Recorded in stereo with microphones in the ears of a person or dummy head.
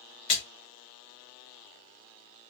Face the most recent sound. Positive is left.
turn(degrees=40)  # may be behind; listen again after turning